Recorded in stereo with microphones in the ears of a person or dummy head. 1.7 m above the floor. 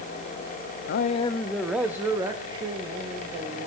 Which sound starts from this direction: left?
A man speaking, at 0.9 s.